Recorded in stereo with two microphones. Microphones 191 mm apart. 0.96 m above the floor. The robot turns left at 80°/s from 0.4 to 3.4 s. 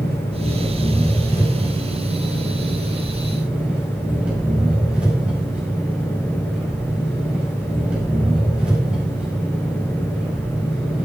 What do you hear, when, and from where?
0.0 s an engine running: 65° left, 5.5 m; by 11.1 s 175° right, 5.5 m